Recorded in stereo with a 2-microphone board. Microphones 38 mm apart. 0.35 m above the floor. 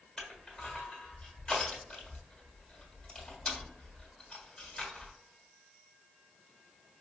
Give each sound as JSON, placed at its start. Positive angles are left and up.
{"t": 0.2, "sound": "crushing", "side_deg": 10, "distance_m": 1.5}